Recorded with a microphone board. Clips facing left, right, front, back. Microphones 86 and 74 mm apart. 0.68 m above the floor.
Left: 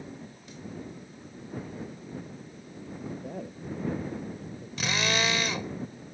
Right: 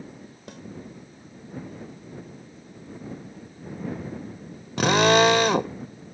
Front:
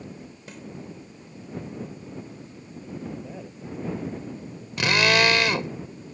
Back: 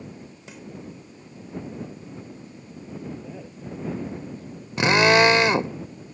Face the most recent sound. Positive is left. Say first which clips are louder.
# right 12 dB, back 4 dB
turn(degrees=-115)